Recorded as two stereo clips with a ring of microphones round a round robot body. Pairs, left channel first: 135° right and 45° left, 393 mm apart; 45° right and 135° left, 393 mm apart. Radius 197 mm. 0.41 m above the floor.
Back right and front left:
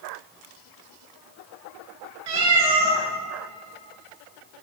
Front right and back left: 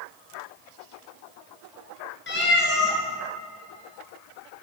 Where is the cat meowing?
20° left, 2 m.